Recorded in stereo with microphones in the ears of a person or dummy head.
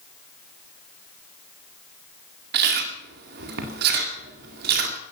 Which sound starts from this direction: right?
Chewing, at 2.5 s.